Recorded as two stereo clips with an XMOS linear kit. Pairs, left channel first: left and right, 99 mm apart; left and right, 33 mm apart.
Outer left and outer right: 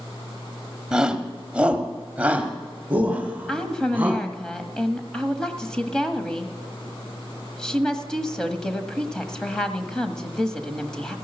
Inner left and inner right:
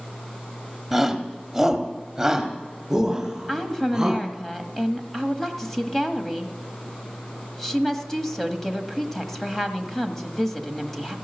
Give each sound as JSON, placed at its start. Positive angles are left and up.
{"t": 0.9, "sound": "a shout", "side_deg": -5, "distance_m": 1.1}
{"t": 3.5, "sound": "a woman speaking", "side_deg": 5, "distance_m": 1.3}